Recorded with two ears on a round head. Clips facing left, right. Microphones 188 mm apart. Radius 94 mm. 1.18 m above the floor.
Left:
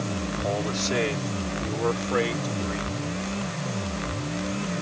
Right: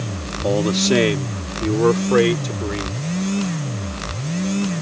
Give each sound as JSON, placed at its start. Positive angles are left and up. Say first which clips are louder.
{"t": 0.4, "sound": "a man speaking", "louder": "right 11 dB", "side_deg": -75}